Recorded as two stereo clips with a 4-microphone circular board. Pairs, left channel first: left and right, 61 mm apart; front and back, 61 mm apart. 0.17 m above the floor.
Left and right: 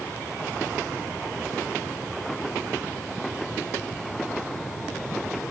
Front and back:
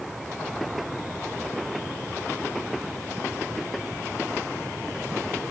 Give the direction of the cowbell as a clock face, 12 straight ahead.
No cowbell in this recording.